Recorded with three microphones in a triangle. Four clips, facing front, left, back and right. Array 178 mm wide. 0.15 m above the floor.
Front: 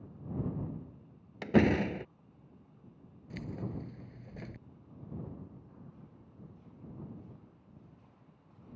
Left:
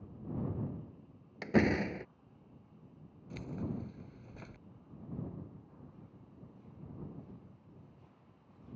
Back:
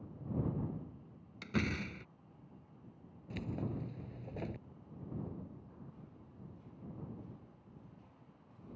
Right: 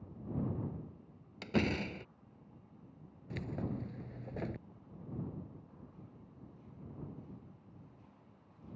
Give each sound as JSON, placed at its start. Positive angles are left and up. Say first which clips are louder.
{"t": 1.4, "sound": "a door slam", "louder": "left 5 dB, front 12 dB", "azimuth_deg": 15}
{"t": 3.3, "sound": "keys jangling", "louder": "even, even", "azimuth_deg": -110}